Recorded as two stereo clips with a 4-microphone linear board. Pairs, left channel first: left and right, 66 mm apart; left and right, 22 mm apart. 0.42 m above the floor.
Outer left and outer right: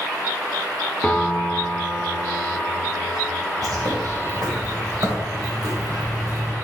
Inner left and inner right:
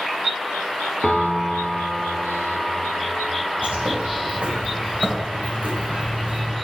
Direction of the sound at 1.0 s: 15° left (ahead or behind).